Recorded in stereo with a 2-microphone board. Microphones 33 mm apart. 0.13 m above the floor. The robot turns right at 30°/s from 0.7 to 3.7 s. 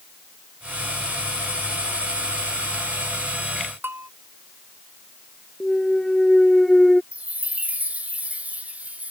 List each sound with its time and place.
3.8 s a bell: 80° right
5.6 s a clunk: 5° left (ahead or behind)
7.1 s a chime: 45° right (ahead or behind)